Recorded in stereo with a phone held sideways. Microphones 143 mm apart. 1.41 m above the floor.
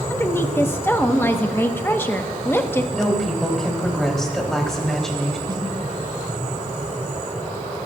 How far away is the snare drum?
About 2.5 m.